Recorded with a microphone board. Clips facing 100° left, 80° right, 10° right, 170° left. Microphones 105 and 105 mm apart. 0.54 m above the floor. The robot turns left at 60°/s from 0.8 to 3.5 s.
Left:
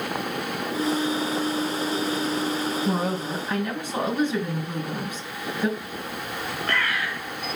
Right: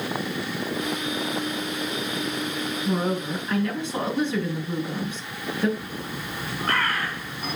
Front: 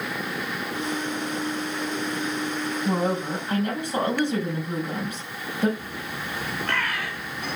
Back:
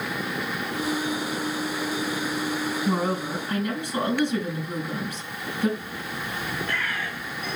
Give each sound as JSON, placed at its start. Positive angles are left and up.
{"t": 2.9, "sound": "a woman speaking", "azimuth_deg": 65, "distance_m": 4.0}
{"t": 5.8, "sound": "a bird", "azimuth_deg": -25, "distance_m": 2.0}